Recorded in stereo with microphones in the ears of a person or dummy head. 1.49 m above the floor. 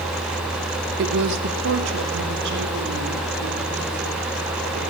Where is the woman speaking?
60° right (ahead or behind), 1.0 m; by 4.8 s 70° right (ahead or behind), 5.5 m.